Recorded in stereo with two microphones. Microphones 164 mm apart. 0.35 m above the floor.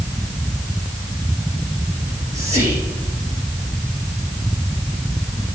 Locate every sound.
2.0 s whispering: 50° right (ahead or behind), 6.5 m